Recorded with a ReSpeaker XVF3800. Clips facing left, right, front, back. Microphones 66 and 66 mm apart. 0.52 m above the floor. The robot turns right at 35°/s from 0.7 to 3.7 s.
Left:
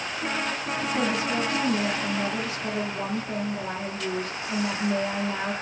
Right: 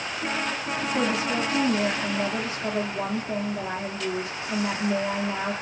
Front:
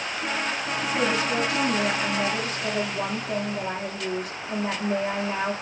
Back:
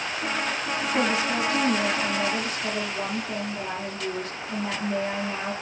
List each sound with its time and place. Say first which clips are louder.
0.9 s a woman speaking: right 1 dB, even; 150° right, 1.1 m; by 5.5 s 55° right, 1.1 m